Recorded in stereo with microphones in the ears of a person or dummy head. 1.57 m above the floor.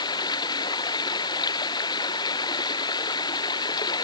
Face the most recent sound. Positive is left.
turn(degrees=25)  # may be behind; listen again after turning